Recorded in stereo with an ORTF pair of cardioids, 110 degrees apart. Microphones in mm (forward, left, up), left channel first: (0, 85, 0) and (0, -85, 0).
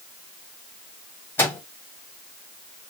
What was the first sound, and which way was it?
A microwave, 15° left.